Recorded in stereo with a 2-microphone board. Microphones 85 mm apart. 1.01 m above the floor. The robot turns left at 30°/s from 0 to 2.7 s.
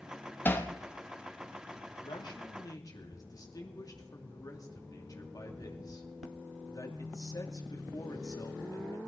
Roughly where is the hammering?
Left.